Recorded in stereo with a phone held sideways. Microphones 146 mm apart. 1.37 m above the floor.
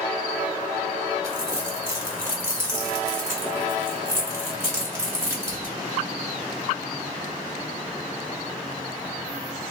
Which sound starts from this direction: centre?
Crumpling, at 1.2 s.